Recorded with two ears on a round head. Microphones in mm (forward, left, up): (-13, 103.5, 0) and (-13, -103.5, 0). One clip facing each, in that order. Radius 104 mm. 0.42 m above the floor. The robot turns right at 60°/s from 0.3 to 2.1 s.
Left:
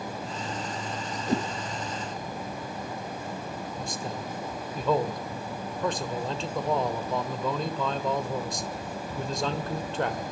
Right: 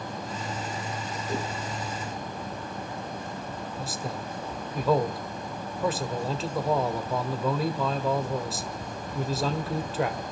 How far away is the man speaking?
About 1.7 m.